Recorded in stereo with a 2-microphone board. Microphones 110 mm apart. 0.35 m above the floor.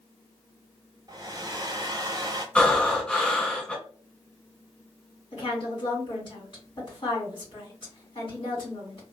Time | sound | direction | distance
1.1 | a hair dryer | 35° right (ahead or behind) | 0.6 m
2.5 | breathing | 10° left (ahead or behind) | 1.4 m
5.3 | a woman speaking | 45° left (ahead or behind) | 1.7 m